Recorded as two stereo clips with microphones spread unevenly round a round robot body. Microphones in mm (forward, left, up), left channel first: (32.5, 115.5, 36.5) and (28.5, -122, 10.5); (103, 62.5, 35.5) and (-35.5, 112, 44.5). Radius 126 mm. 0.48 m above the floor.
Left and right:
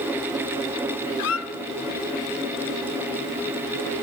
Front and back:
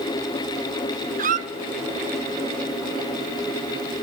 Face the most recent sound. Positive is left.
turn(degrees=125)